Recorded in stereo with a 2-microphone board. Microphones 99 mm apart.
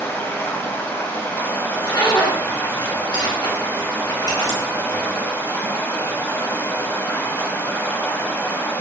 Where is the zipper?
45° left (ahead or behind), 1.0 m.